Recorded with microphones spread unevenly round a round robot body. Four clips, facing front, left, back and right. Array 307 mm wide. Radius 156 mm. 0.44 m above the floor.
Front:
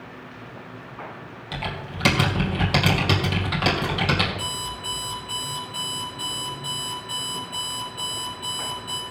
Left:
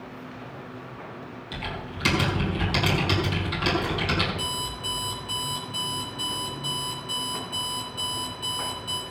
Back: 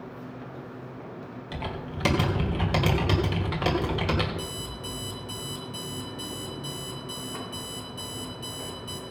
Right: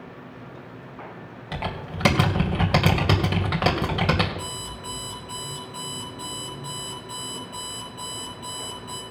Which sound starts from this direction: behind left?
An alarm clock, at 4.4 s.